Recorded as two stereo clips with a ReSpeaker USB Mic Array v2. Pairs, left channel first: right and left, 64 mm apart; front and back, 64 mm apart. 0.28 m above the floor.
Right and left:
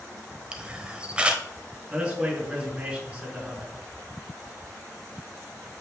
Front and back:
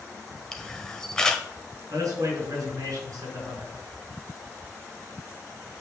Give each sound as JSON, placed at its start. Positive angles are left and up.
{"t": 0.5, "sound": "a camera shutter", "azimuth_deg": 55, "distance_m": 1.2}
{"t": 1.9, "sound": "a man speaking", "azimuth_deg": 165, "distance_m": 4.0}